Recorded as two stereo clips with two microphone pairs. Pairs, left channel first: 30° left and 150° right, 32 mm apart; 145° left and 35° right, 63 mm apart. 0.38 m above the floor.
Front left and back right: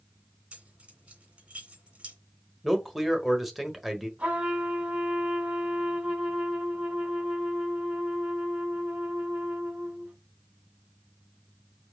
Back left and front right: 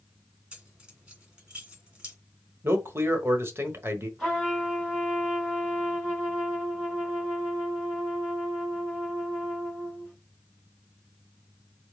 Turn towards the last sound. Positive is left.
turn(degrees=-115)